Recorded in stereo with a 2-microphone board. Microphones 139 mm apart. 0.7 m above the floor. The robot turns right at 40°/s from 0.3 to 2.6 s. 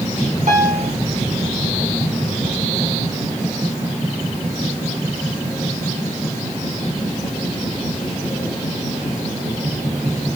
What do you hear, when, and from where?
0.5 s a piano: 65° right (ahead or behind), 1.9 m; by 0.9 s 70° right (ahead or behind), 1.9 m